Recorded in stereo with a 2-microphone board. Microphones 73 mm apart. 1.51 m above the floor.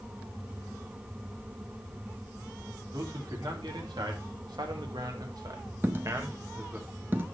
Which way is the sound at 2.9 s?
80° right.